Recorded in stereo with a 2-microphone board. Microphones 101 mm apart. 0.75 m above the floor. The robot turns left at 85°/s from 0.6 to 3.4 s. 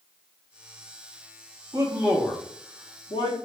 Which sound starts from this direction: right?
A man speaking, at 1.7 s.